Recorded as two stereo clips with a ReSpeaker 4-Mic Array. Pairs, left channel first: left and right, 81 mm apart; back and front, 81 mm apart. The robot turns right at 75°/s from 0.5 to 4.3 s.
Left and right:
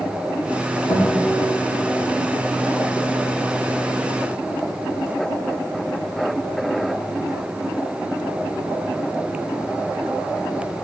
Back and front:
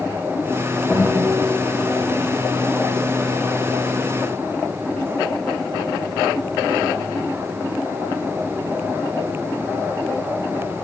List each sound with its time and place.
0.9 s a guitar: 105° left, 2.5 m; by 1.3 s 130° left, 2.5 m